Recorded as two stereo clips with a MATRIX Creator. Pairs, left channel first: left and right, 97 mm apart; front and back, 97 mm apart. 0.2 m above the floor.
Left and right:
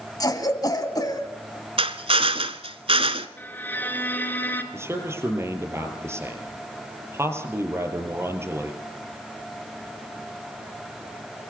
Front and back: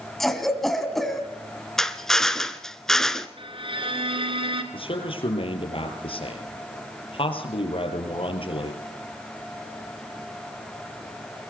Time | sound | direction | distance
0.2 | a cough | 85° left | 1.9 m
1.8 | a drill | 85° right | 1.1 m
3.4 | a violin | 160° left | 2.5 m
4.7 | a man speaking | 25° right | 4.5 m